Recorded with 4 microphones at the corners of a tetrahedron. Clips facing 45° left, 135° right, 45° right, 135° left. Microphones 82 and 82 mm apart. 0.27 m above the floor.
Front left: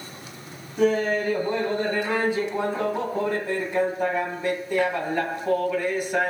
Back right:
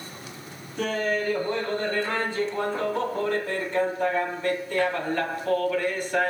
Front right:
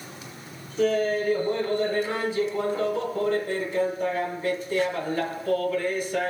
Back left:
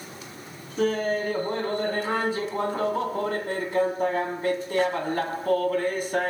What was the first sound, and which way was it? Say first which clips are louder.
Laughter: front left 5 dB, front right 1 dB; 120° left.